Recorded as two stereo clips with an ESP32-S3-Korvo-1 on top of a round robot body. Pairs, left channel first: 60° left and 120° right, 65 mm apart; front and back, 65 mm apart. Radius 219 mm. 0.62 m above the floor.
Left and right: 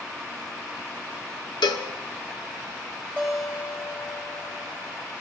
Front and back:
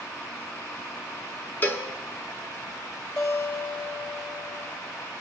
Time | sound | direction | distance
1.6 | a cowbell | 60° left | 0.7 m
3.2 | a guitar | 25° right | 8 m